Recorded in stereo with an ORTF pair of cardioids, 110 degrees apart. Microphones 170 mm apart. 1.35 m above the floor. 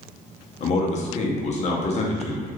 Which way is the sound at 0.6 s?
40° left.